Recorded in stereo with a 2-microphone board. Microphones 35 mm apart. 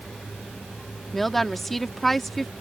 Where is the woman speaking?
5° left (ahead or behind).